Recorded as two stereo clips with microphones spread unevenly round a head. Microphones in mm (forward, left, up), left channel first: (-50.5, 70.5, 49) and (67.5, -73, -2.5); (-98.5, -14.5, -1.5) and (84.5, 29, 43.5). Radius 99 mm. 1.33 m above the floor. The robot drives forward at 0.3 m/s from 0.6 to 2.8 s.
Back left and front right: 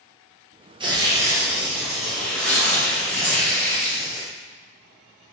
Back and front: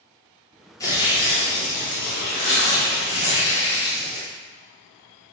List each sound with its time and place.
0.8 s tearing paper: 105° right, 0.6 m; by 4.3 s 145° right, 0.9 m